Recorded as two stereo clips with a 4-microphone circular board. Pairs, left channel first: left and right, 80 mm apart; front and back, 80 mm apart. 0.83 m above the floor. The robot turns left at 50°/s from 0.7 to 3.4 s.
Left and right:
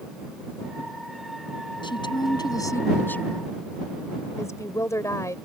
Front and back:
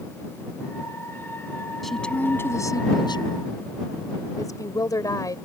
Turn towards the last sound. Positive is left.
turn(degrees=40)